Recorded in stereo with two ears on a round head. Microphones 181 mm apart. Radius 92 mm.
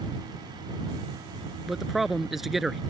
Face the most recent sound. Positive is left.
turn(degrees=0)  # may be behind; listen again after turning